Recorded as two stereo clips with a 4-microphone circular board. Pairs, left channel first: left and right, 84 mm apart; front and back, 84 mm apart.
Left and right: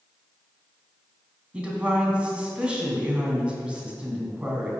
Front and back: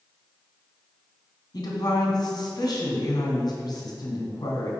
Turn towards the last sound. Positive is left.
turn(degrees=-15)